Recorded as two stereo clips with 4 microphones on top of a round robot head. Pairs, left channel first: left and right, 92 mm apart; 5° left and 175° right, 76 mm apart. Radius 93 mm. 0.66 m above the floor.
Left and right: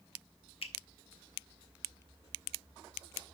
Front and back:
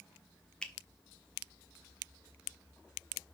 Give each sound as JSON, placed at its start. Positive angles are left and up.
{"t": 0.6, "sound": "a finger snap", "azimuth_deg": 85, "distance_m": 1.4}